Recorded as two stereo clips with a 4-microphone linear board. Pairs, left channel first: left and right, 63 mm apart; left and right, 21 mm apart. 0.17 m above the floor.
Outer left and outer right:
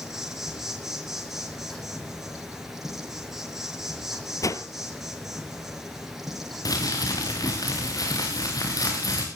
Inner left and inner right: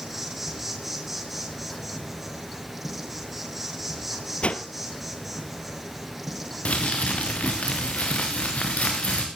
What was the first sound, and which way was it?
An insect, 5° right (ahead or behind).